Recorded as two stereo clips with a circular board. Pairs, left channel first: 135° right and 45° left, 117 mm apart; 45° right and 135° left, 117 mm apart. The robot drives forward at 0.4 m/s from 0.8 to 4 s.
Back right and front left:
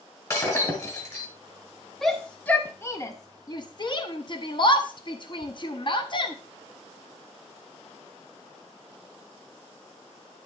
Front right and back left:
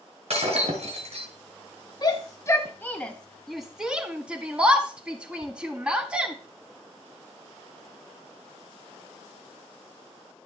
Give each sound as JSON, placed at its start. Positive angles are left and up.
{"t": 0.3, "sound": "breaking glass", "azimuth_deg": 165, "distance_m": 2.5}
{"t": 2.0, "sound": "a shout", "azimuth_deg": -50, "distance_m": 0.8}